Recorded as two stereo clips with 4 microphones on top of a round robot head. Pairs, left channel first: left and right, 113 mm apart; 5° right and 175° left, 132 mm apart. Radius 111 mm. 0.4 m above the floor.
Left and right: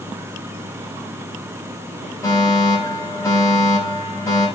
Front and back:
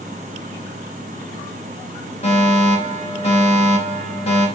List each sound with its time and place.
2.2 s a fire alarm: 25° left, 6 m